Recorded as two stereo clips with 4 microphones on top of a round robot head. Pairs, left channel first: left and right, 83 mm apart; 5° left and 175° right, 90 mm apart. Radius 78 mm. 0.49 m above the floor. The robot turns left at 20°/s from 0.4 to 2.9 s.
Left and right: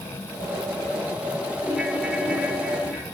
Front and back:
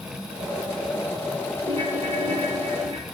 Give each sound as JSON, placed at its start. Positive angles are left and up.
{"t": 1.6, "sound": "a ringtone", "azimuth_deg": 180, "distance_m": 5.0}